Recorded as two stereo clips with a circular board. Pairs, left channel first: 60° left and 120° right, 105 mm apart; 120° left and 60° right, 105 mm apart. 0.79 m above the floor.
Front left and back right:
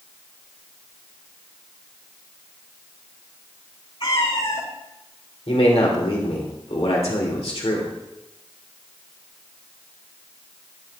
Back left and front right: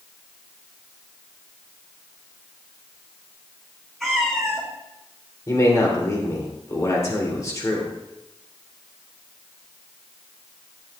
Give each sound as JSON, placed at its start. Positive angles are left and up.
{"t": 4.0, "sound": "a cat meowing", "azimuth_deg": 35, "distance_m": 3.0}
{"t": 5.5, "sound": "a man speaking", "azimuth_deg": 65, "distance_m": 2.5}